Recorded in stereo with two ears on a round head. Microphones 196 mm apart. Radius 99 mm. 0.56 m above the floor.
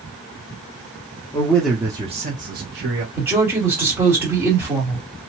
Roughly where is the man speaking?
Centre.